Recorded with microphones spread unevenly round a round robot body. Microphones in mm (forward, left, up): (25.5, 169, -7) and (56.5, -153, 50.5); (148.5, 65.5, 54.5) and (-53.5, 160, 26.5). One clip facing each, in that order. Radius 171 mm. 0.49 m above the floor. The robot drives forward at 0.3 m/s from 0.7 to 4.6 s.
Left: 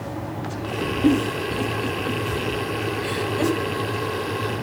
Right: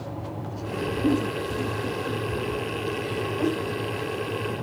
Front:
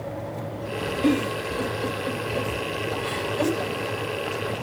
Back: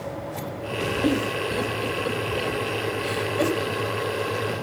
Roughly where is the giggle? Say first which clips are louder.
Left 5 dB, front 2 dB; left.